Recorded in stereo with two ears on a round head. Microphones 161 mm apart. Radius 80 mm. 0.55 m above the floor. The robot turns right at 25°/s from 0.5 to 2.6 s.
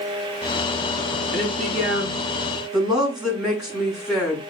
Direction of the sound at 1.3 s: 35° right.